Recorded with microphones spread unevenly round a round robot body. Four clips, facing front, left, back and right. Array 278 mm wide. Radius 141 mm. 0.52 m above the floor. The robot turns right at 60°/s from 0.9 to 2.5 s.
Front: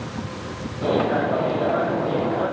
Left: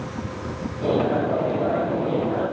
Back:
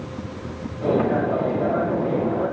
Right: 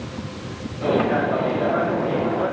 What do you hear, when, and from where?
Only background noise.